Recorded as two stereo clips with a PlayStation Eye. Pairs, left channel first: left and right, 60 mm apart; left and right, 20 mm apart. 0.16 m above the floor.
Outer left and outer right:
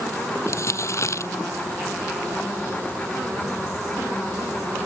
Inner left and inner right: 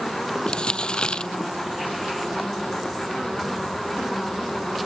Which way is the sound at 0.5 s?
55° left (ahead or behind).